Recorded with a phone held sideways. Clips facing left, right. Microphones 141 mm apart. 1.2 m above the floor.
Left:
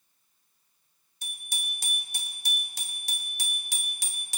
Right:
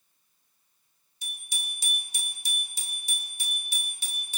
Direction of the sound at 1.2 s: 50° left (ahead or behind).